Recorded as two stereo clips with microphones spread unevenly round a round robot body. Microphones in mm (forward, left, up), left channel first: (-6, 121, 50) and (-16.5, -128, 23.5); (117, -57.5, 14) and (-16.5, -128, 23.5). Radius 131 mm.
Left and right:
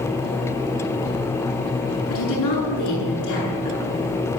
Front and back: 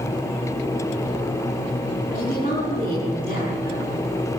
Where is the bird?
No bird in this recording.